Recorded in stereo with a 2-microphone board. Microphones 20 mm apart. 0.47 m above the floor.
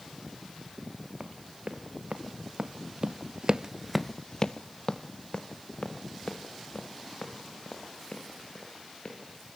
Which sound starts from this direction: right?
Running footsteps, at 1.2 s.